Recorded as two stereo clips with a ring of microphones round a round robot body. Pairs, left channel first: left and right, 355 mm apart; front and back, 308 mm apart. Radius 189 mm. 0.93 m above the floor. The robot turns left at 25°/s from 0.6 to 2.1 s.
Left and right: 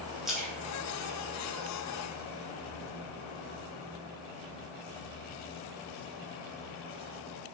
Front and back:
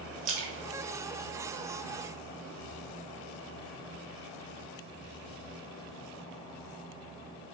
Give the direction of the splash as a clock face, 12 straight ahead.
6 o'clock.